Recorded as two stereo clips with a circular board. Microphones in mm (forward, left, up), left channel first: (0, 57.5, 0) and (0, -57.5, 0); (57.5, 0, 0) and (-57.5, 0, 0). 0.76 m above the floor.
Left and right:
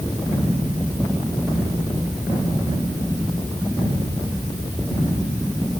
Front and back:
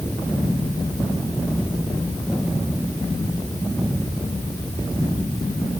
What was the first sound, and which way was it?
Only background noise.